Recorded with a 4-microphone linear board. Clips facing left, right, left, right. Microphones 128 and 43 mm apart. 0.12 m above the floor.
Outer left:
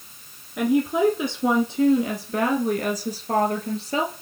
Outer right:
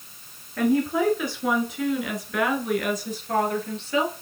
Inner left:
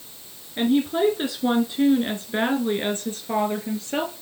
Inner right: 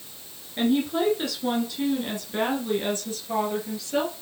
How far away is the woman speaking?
About 1.3 m.